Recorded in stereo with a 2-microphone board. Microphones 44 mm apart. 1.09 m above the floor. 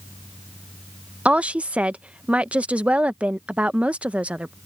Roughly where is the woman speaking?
Right.